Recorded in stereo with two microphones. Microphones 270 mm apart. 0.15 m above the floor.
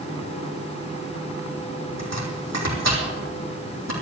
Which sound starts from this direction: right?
Chopping, at 2.0 s.